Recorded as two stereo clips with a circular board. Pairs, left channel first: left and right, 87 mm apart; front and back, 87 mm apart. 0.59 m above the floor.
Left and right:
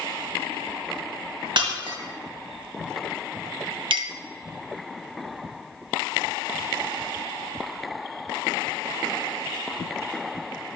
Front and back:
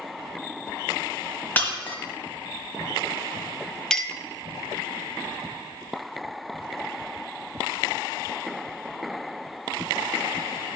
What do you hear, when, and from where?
1.6 s breaking glass: 70° right, 1.5 m
3.9 s a clink: 80° right, 0.6 m